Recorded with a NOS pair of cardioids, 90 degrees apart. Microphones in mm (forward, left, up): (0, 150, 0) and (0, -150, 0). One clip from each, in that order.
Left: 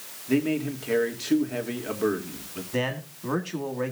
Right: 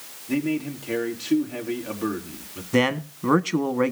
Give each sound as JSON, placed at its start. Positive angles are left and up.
{"t": 0.3, "sound": "a man speaking", "azimuth_deg": 15, "distance_m": 3.0}
{"t": 2.7, "sound": "a man speaking", "azimuth_deg": -50, "distance_m": 1.4}